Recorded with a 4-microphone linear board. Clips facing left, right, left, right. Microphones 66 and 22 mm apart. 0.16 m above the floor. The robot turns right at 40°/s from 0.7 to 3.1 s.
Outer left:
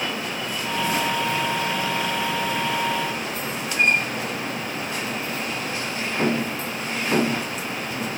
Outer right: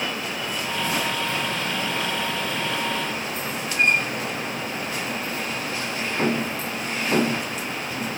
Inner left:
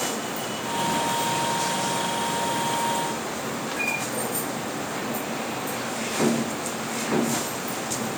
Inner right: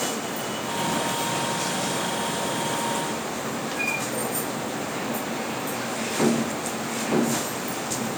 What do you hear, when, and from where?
Only background noise.